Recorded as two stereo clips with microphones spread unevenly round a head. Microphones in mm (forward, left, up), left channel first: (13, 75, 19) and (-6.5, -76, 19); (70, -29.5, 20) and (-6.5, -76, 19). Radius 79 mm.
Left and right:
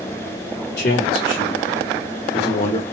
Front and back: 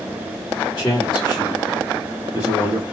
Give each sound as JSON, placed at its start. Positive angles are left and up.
{"t": 0.8, "sound": "a man speaking", "azimuth_deg": 115, "distance_m": 2.5}